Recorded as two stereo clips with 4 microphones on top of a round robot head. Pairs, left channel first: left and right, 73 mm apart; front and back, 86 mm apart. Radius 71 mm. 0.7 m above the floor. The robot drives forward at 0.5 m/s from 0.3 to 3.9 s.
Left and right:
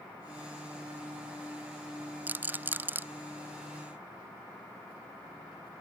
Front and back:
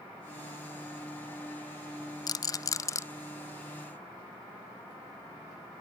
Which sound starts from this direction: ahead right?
A rattle, at 2.3 s.